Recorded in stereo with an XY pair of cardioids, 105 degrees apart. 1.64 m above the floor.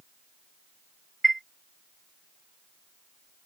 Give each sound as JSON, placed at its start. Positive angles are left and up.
{"t": 1.2, "sound": "a chime", "azimuth_deg": -15}